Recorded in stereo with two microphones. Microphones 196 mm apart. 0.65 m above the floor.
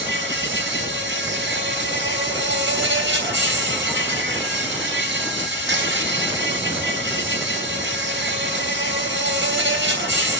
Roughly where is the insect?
Right.